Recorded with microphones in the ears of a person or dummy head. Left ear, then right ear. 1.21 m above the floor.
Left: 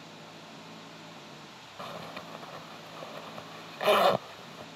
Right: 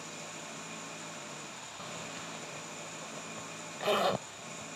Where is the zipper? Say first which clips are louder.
Left 4 dB; 25° left (ahead or behind).